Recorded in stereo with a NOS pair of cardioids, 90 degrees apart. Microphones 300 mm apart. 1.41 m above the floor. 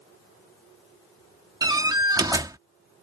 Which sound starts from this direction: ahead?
A door slam, at 1.6 s.